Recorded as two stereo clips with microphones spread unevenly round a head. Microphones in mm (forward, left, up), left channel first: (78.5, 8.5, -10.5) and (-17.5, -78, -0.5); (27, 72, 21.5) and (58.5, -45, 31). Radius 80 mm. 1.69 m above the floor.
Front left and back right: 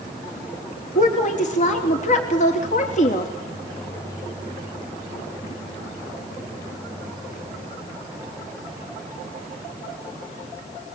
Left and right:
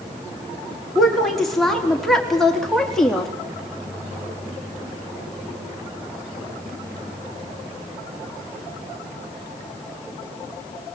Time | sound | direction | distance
0.9 | a woman speaking | 15° left | 4.5 m